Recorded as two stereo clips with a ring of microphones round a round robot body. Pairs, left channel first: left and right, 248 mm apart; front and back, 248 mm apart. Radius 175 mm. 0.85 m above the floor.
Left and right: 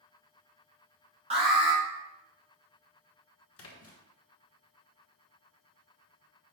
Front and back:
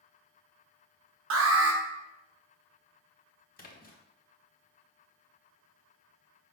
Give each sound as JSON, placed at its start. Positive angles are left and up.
{"t": 1.3, "sound": "an alarm", "azimuth_deg": -155, "distance_m": 0.6}
{"t": 3.6, "sound": "a splash", "azimuth_deg": 60, "distance_m": 1.0}